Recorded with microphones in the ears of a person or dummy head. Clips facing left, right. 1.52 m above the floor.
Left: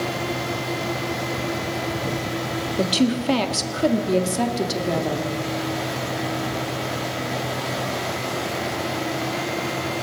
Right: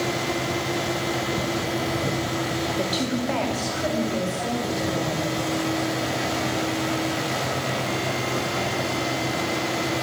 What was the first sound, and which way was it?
A woman speaking, 35° left (ahead or behind).